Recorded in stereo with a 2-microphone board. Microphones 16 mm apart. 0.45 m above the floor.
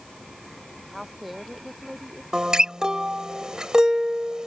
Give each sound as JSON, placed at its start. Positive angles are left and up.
{"t": 0.9, "sound": "a woman speaking", "side_deg": -5}
{"t": 2.3, "sound": "a guitar", "side_deg": -50}